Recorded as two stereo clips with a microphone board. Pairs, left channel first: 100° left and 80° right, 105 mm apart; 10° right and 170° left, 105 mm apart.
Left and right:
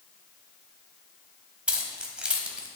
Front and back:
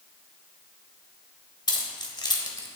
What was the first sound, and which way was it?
Keys jangling, 5° right.